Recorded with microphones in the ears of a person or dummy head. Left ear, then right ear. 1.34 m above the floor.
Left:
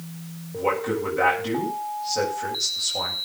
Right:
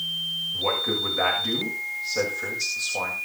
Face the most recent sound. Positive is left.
turn(degrees=-15)  # may be behind; listen again after turning